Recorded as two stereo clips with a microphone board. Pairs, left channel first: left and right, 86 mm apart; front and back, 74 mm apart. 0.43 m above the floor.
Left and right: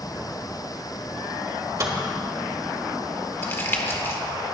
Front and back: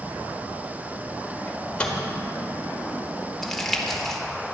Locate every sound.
1.5 s a microwave: 70° right, 1.5 m
3.4 s crumpling: 80° left, 1.2 m